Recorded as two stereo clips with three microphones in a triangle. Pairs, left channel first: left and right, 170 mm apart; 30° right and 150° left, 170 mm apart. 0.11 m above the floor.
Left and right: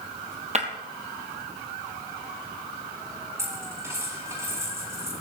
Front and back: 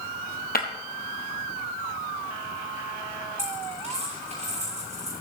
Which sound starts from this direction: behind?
A dropped coin, at 3.4 s.